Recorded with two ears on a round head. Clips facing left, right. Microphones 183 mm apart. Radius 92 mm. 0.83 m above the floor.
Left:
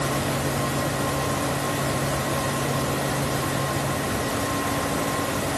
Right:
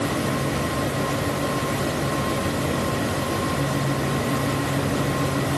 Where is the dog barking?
I don't hear a dog barking.